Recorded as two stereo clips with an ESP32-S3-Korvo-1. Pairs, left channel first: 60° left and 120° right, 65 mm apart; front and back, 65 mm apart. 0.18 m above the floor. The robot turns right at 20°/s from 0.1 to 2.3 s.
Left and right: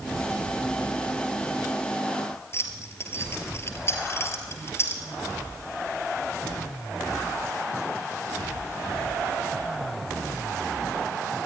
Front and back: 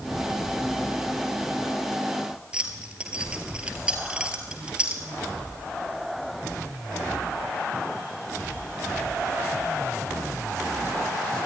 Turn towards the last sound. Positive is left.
turn(degrees=110)